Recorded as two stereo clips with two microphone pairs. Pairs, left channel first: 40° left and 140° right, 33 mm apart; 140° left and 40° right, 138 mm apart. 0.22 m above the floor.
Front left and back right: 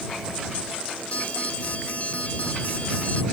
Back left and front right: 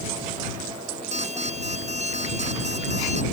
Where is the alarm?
5° right.